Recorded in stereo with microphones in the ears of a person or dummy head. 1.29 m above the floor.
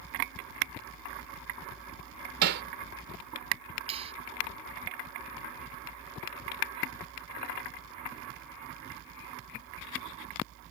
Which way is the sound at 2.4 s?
55° right (ahead or behind).